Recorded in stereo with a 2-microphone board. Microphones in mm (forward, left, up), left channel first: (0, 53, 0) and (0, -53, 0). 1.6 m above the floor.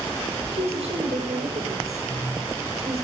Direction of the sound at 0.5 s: 85° right.